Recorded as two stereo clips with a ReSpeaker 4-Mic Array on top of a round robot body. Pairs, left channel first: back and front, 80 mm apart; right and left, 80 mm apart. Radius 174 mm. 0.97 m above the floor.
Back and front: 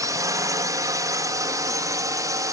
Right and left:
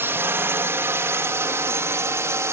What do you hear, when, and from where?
0.0 s a drone: 35° left; by 2.5 s 40° left